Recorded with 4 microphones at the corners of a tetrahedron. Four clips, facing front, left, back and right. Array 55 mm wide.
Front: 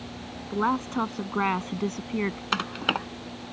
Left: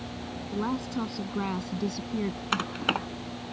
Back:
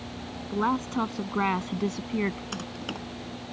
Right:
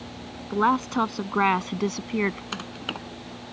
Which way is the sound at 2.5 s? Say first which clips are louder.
Left 5 dB, front 9 dB; 30° left.